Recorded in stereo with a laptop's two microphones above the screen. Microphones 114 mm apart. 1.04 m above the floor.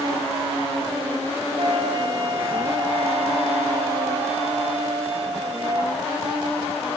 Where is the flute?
65° right (ahead or behind), 1.1 m.